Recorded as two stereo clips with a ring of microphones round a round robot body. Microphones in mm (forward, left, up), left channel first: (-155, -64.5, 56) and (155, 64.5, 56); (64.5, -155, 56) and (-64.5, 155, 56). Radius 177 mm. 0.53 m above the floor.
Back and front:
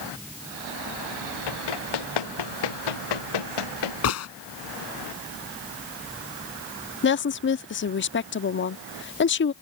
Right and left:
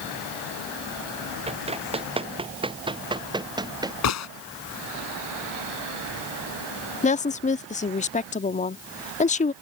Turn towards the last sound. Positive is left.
turn(degrees=-125)